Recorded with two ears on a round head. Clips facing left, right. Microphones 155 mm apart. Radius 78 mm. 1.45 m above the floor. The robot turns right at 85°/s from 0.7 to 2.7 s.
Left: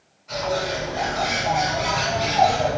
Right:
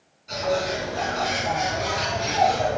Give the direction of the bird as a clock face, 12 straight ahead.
12 o'clock.